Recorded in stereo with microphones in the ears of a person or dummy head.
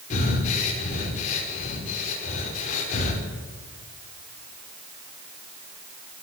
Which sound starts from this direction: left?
Breathing, at 0.1 s.